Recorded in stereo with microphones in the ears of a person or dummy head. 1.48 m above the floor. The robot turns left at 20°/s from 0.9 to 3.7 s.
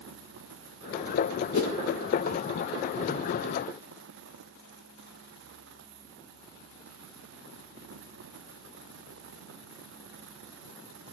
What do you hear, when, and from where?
1.5 s a whoosh: 45° left (ahead or behind), 1.1 m; by 1.8 s 50° left (ahead or behind), 1.1 m